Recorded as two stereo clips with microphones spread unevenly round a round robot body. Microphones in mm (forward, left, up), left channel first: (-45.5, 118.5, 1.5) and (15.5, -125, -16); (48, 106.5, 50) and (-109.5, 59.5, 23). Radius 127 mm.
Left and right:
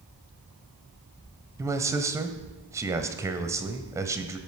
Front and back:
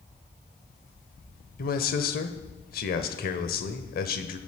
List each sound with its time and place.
1.6 s a man speaking: straight ahead, 1.2 m